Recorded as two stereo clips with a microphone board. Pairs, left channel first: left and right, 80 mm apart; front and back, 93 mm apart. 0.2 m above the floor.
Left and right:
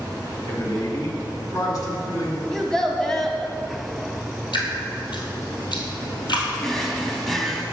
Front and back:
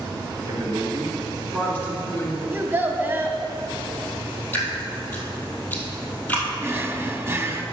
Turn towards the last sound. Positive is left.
turn(degrees=170)